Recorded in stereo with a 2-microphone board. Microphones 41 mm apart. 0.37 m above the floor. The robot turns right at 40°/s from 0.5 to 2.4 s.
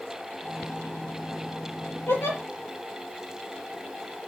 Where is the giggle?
75° left (ahead or behind), 9 m; by 2.4 s 65° left (ahead or behind), 9 m.